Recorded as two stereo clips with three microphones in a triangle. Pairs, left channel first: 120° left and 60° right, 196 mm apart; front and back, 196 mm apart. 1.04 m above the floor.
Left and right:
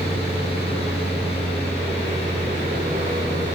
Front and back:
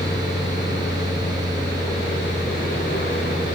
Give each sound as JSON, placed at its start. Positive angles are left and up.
{"t": 0.0, "sound": "an aircraft", "azimuth_deg": -5}